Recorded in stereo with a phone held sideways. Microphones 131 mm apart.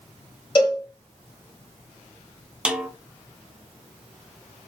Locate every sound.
0.6 s a cowbell: 35° left (ahead or behind), 1.6 m
2.6 s a snare drum: 5° right (ahead or behind), 0.5 m